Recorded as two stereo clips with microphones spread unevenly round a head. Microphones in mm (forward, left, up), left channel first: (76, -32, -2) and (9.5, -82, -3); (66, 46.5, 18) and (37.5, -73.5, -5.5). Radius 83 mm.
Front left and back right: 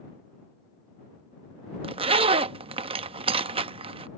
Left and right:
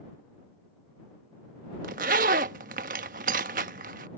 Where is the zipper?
140° right.